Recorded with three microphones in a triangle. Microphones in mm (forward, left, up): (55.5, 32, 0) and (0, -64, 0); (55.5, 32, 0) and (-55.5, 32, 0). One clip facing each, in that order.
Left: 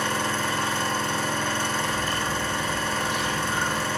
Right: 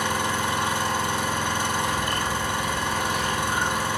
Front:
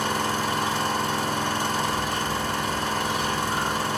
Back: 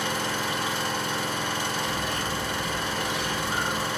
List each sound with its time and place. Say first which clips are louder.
0.0 s an engine running: right 1 dB, front 3 dB; 45° right, 0.9 m
1.9 s a bird: right 1 dB, front 3 dB; 170° right, 1.6 m